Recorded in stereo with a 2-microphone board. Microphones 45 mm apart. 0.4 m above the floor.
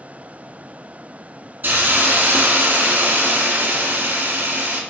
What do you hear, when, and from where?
1.6 s a hiss: 45° right (ahead or behind), 0.6 m